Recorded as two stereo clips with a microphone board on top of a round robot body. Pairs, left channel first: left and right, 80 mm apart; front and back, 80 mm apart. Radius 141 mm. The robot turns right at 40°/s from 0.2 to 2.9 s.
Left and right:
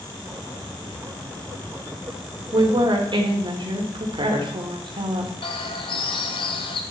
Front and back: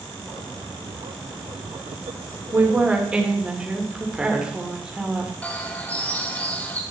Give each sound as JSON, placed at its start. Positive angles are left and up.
{"t": 2.5, "sound": "a woman speaking", "azimuth_deg": -115, "distance_m": 3.0}
{"t": 5.4, "sound": "a bird", "azimuth_deg": 75, "distance_m": 1.1}